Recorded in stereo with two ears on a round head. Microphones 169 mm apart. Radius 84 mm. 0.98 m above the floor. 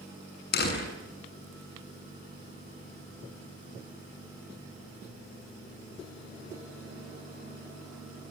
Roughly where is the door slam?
Left.